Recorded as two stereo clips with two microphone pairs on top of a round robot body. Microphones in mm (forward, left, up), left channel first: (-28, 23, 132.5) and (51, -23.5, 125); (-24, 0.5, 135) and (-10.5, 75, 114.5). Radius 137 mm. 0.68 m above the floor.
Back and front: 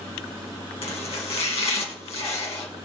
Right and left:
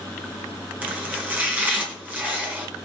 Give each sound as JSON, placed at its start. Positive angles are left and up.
{"t": 0.8, "sound": "chopping", "azimuth_deg": 155, "distance_m": 1.9}